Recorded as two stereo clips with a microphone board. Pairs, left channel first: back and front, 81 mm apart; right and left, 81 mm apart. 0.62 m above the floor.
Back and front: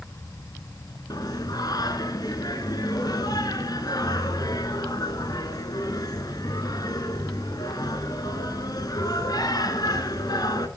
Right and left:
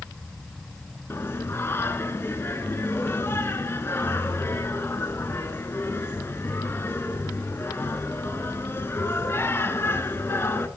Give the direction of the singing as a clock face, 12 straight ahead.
5 o'clock.